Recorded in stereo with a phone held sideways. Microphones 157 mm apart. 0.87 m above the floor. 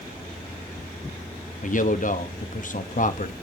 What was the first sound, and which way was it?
A man speaking, 55° left (ahead or behind).